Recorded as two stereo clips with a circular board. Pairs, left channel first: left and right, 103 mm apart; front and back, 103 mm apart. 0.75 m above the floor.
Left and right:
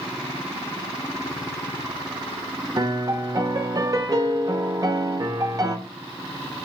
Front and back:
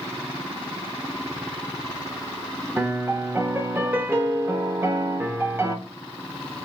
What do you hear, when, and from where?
2.8 s a piano: 120° right, 0.6 m